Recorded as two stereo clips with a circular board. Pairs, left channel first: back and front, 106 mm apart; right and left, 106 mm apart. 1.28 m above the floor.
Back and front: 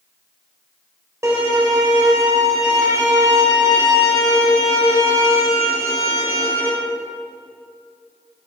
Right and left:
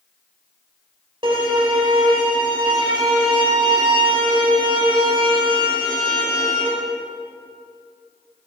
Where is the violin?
60° left, 1.9 m.